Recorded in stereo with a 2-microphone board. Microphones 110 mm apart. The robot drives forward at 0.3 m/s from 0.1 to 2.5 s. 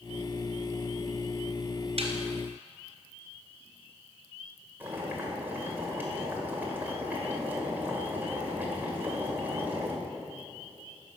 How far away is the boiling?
About 1.8 m.